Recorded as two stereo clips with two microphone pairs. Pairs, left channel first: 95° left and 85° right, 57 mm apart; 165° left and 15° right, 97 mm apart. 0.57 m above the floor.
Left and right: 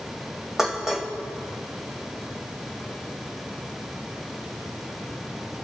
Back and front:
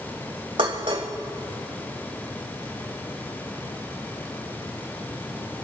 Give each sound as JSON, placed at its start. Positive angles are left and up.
{"t": 0.6, "sound": "dishes clattering", "azimuth_deg": -5, "distance_m": 2.0}